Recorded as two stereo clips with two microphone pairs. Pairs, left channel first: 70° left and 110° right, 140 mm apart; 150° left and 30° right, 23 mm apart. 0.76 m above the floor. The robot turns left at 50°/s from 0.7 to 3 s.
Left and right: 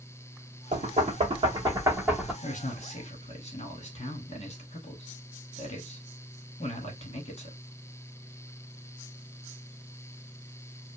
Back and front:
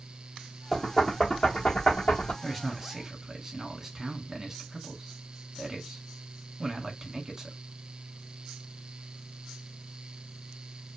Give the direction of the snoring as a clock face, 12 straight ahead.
I don't hear snoring.